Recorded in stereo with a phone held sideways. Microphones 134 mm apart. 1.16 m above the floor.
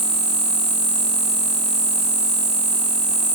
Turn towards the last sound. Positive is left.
turn(degrees=-55)  # may be behind; listen again after turning